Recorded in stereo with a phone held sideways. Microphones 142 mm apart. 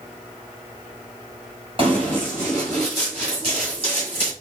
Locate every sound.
1.8 s running footsteps: 35° right (ahead or behind), 2.0 m; by 4.3 s 45° right (ahead or behind), 3.5 m